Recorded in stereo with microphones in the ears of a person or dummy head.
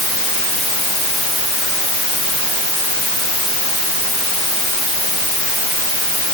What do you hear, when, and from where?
Only background noise.